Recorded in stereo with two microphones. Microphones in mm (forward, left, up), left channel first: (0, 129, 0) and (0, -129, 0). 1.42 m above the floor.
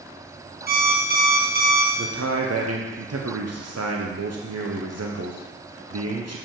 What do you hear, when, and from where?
0.7 s an alarm clock: 35° right (ahead or behind), 1.1 m
2.0 s a man speaking: 70° right (ahead or behind), 0.8 m